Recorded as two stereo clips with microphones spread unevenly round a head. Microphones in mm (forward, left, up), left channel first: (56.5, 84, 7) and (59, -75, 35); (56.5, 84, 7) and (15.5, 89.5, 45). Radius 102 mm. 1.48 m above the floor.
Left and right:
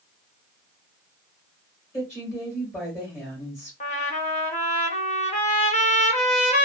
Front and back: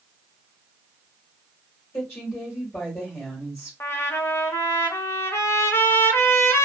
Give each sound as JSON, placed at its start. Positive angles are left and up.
{"t": 1.9, "sound": "a woman speaking", "azimuth_deg": 15, "distance_m": 1.5}
{"t": 3.8, "sound": "a trumpet", "azimuth_deg": 55, "distance_m": 0.6}